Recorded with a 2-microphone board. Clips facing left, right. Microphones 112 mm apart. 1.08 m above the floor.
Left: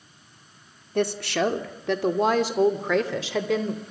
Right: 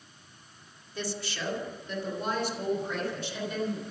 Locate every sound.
0.9 s a woman speaking: 55° left (ahead or behind), 2.5 m; by 3.8 s 80° left, 3.5 m